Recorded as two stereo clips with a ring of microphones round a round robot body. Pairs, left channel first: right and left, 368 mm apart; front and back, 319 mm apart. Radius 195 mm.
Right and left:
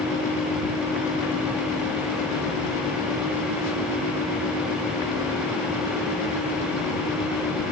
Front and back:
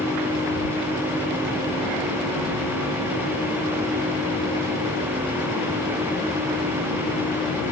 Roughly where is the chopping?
No chopping in this recording.